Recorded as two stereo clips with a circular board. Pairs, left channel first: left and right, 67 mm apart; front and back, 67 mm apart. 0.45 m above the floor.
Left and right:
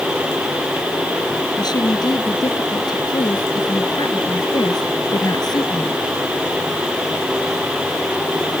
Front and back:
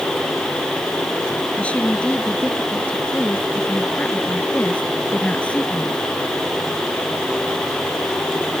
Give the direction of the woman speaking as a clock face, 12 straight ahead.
10 o'clock.